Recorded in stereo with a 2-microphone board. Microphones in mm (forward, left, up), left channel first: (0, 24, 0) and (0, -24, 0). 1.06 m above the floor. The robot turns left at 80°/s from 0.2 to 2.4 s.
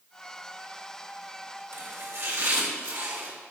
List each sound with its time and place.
1.7 s chopping: 55° right, 3 m; by 3.3 s 110° right, 3 m